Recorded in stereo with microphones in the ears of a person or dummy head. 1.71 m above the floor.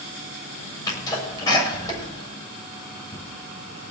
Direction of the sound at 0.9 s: 20° left (ahead or behind).